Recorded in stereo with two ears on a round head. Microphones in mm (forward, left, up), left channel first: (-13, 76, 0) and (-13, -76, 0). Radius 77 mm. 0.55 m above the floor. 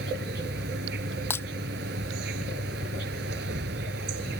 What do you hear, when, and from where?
0.0 s an insect: 70° right (ahead or behind)
1.3 s breaking glass: 15° left (ahead or behind)